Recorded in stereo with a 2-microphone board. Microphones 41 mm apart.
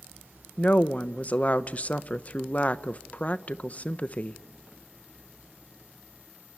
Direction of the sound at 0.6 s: 40° left (ahead or behind).